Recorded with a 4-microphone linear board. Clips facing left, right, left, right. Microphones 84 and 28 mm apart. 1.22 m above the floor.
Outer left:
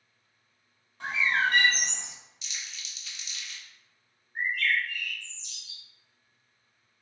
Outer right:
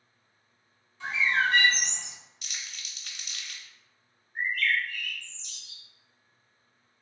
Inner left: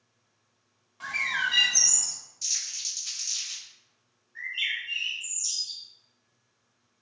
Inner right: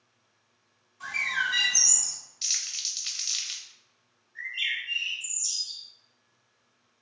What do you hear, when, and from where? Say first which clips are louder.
1.0 s a bird: even, even; 50° left (ahead or behind), 1.0 m
2.4 s crumpling: even, inner right 2 dB; 55° right (ahead or behind), 0.6 m
4.3 s a bird: even, even; 15° left (ahead or behind), 1.9 m